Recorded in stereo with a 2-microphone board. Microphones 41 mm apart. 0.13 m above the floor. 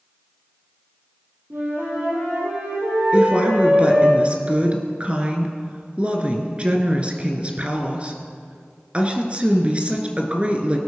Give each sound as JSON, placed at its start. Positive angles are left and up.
{"t": 1.5, "sound": "a flute", "side_deg": -70, "distance_m": 5.5}
{"t": 3.1, "sound": "a woman speaking", "side_deg": -30, "distance_m": 2.0}